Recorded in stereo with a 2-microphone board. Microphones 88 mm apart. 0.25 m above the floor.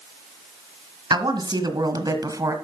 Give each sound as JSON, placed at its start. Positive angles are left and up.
{"t": 1.1, "sound": "a woman speaking", "side_deg": -60, "distance_m": 2.0}